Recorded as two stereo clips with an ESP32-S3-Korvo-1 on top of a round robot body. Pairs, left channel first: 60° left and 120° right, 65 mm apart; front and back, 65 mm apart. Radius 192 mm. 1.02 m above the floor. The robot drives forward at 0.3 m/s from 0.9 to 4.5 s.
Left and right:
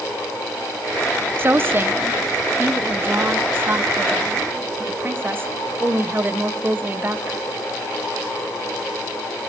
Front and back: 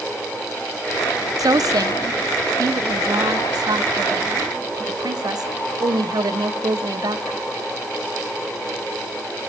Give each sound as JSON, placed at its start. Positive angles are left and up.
{"t": 1.4, "sound": "a woman speaking", "azimuth_deg": -170, "distance_m": 0.9}